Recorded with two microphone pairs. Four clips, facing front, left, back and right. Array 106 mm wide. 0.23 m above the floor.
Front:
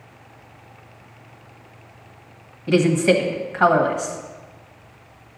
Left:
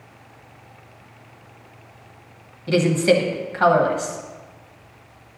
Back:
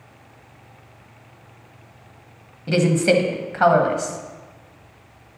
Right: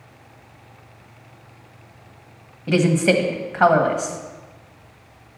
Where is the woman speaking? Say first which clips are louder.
Even, front 1 dB; 105° right, 1.2 m.